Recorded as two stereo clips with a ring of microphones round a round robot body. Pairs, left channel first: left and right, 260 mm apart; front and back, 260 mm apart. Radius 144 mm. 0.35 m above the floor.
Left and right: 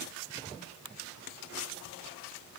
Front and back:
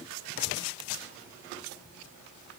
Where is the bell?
No bell in this recording.